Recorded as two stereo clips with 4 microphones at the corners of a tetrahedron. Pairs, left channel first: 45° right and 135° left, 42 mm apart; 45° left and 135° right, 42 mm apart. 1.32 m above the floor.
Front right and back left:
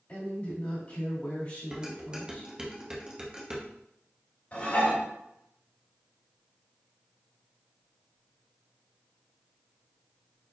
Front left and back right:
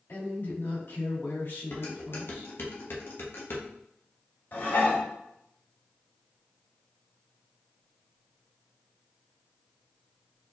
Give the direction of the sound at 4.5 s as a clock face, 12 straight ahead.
12 o'clock.